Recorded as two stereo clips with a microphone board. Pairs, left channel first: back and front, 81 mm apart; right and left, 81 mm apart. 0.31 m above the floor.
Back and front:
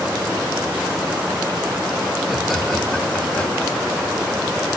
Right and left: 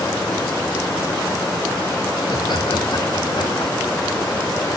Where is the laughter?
90° right, 3.5 m; by 4.1 s 115° right, 5 m.